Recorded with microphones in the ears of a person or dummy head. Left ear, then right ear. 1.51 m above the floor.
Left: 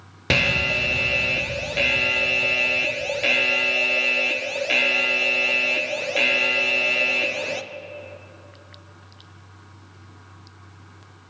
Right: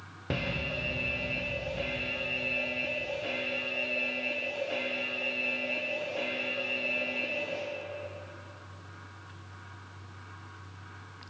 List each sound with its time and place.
0.3 s an alarm: 70° left (ahead or behind), 0.5 m